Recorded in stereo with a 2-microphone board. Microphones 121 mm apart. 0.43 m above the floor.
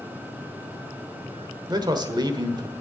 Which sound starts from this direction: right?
A man speaking, at 1.7 s.